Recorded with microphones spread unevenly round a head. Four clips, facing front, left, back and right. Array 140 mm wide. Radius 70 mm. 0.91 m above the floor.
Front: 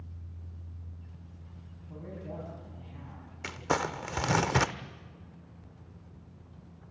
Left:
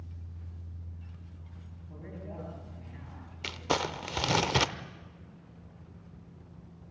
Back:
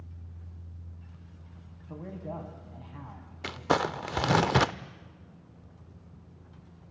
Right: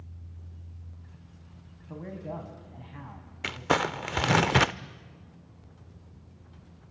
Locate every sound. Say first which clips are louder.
1.9 s a man speaking: right 7 dB, back 3 dB; 150° right, 5.5 m
3.4 s crumpling: right 4 dB, back 3 dB; 145° right, 0.6 m